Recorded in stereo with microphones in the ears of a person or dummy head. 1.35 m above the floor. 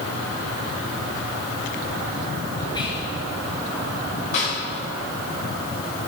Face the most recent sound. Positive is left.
turn(degrees=45)  # may be behind; listen again after turning